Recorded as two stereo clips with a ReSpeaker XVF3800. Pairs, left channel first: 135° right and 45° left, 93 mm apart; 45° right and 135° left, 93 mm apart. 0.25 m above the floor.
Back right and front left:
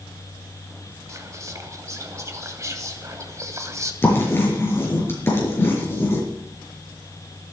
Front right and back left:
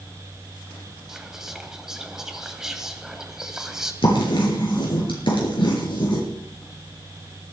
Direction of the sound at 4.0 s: 70° right.